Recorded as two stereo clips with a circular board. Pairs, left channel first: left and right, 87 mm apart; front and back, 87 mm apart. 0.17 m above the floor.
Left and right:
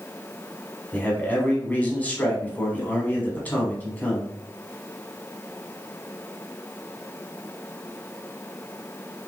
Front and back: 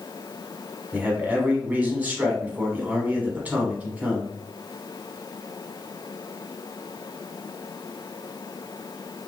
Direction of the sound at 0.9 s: 130° left.